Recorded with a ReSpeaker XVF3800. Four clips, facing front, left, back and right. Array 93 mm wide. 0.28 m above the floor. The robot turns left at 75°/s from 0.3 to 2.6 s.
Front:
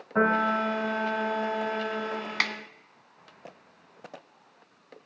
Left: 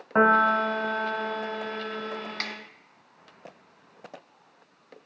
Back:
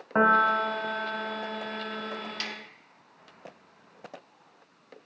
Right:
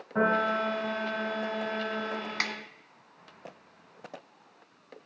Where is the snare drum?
10° right, 0.9 m; by 2.5 s 20° right, 0.9 m.